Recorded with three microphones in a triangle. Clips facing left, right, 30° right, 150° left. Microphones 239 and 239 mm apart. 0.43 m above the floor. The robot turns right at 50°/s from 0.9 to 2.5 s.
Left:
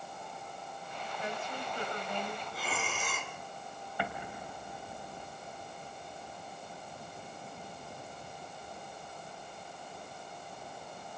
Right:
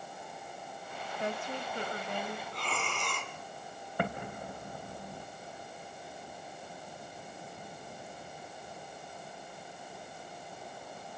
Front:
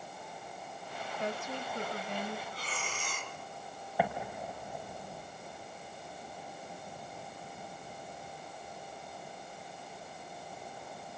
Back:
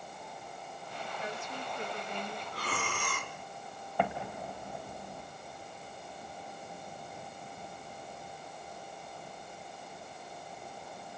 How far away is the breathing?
About 1.8 m.